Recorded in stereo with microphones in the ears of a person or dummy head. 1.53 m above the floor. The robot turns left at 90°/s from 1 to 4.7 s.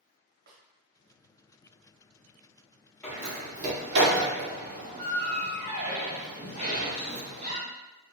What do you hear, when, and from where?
0.5 s a snare drum: 60° right (ahead or behind), 1.0 m
3.0 s a door slam: 15° left (ahead or behind), 1.3 m; by 7.6 s 40° right (ahead or behind), 1.3 m